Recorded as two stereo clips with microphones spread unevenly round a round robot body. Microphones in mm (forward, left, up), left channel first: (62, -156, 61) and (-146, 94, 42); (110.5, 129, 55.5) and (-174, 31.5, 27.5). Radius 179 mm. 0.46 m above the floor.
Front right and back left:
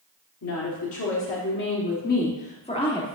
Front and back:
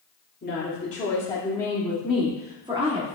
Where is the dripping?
I don't hear dripping.